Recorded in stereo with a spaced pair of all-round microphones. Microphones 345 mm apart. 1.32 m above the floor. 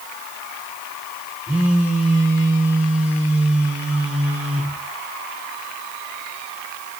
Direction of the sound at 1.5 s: 5° right (ahead or behind).